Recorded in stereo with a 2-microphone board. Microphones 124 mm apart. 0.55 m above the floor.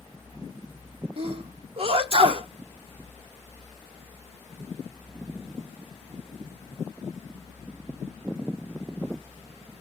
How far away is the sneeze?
About 0.9 m.